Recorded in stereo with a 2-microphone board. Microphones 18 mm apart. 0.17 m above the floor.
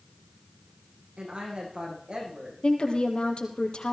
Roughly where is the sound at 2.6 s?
Left.